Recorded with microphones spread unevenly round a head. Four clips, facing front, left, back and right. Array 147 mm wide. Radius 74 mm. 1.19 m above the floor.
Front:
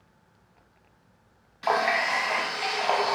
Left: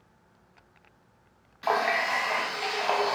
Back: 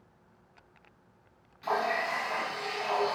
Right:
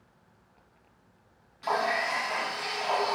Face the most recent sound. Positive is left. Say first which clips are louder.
# left 2 dB, front 5 dB
turn(degrees=25)